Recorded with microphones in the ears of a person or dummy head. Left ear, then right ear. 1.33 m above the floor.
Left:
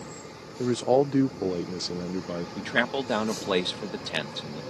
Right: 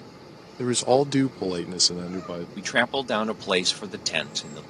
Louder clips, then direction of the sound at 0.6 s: Right 2 dB; 55° right (ahead or behind).